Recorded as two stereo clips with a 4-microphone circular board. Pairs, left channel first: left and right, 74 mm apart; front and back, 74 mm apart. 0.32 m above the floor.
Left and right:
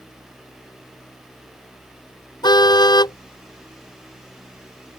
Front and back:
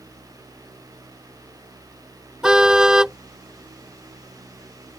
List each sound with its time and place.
2.4 s a car horn: 100° left